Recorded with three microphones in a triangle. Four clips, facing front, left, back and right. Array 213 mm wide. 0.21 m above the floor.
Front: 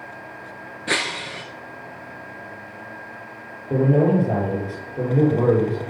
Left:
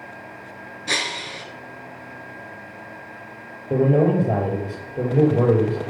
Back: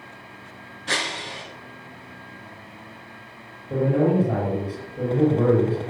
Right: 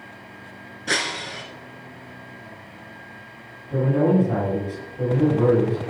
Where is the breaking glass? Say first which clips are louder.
Right 1 dB, front 2 dB; 20° right, 2.0 m.